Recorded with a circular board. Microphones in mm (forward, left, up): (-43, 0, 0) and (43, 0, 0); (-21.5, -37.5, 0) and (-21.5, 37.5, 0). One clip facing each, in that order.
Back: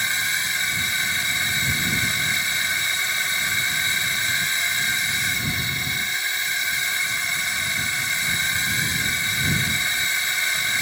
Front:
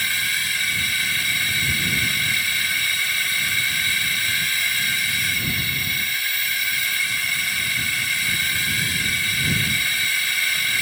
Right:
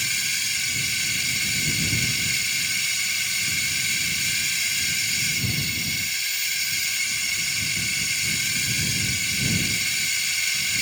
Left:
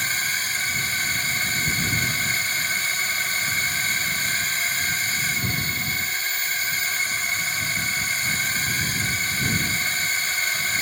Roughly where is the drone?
Behind left.